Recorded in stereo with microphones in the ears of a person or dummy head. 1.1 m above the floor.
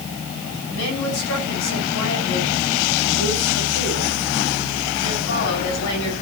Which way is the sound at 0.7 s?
85° left.